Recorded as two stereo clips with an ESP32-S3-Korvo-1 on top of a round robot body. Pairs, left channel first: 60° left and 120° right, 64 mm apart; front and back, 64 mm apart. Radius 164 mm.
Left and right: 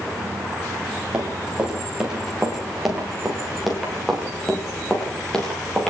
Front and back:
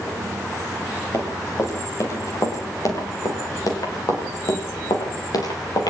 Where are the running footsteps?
45° right, 8 m; by 5.9 s 20° right, 9.5 m.